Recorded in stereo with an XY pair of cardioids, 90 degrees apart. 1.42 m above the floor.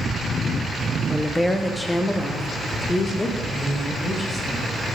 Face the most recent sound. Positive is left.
turn(degrees=25)